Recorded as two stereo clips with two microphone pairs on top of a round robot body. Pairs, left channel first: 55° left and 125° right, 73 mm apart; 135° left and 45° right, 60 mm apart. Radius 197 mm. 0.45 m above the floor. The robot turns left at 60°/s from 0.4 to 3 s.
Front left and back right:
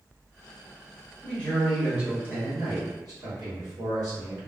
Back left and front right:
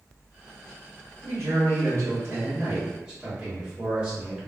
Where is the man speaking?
10° right, 1.8 m; by 4.5 s 115° right, 1.8 m.